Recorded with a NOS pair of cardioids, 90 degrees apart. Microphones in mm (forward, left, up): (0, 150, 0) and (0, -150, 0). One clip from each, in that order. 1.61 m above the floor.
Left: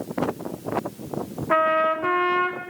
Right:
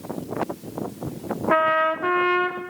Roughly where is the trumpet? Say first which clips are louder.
Even; ahead.